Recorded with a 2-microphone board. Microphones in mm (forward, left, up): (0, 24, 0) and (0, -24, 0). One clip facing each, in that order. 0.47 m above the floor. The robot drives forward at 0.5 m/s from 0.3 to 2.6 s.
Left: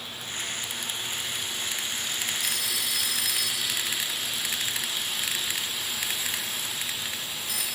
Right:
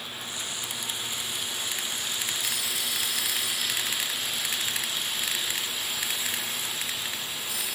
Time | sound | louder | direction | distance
2.4 | a phone ringing | left 1 dB | 65° left (ahead or behind) | 5.5 m